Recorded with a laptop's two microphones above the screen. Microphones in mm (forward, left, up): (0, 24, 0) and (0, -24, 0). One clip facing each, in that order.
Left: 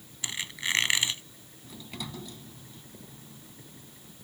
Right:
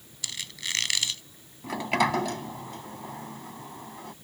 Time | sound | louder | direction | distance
0.2 | a squeak | left 3 dB | 25° left (ahead or behind) | ?
1.6 | a sliding door | right 17 dB | 80° right | ?